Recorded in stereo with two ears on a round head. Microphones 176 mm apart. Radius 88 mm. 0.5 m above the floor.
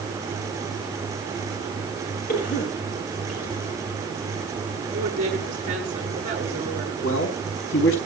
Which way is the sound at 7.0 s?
75° left (ahead or behind).